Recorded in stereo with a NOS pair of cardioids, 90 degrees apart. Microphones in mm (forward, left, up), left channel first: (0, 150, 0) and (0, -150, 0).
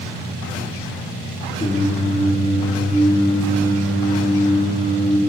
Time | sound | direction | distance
1.6 | singing | 20° left | 5 m